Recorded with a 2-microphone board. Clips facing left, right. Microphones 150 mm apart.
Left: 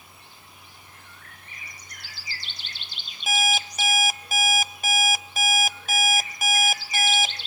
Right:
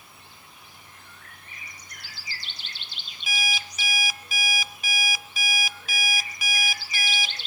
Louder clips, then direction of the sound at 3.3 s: Left 8 dB; 45° left (ahead or behind).